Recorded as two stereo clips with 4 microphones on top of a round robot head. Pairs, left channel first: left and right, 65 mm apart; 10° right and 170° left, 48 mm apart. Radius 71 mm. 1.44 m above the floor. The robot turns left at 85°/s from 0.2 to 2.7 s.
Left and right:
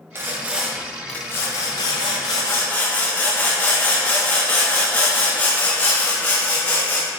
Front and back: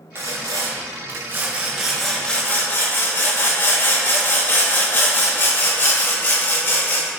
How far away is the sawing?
About 0.7 m.